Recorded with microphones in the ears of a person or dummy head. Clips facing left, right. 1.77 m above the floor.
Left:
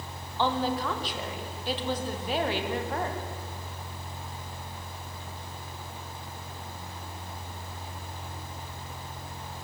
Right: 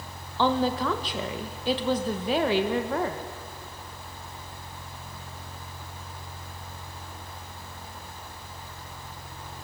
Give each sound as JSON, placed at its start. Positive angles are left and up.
{"t": 0.4, "sound": "a woman speaking", "side_deg": -60, "distance_m": 1.8}